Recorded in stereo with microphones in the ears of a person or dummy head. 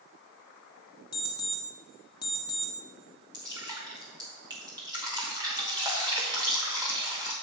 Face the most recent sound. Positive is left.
turn(degrees=-25)  # may be behind; listen again after turning